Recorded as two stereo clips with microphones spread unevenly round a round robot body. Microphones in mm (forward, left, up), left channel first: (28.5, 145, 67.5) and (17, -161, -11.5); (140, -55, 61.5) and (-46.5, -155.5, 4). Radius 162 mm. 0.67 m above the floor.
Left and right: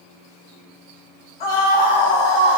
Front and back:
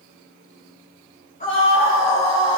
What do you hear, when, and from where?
1.4 s a scream: 100° left, 4.5 m; by 2.6 s 105° left, 4 m